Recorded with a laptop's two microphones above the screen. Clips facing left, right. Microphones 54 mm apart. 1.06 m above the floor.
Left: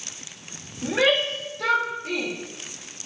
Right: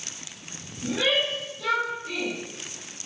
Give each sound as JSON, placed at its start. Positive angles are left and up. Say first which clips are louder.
{"t": 0.8, "sound": "a shout", "louder": "left 4 dB", "side_deg": 55, "distance_m": 4.0}